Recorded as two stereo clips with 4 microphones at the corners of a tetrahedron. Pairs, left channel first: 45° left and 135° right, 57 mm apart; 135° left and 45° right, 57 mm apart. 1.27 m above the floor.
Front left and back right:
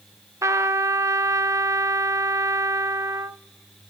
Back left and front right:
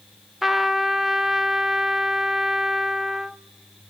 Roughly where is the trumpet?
Behind right.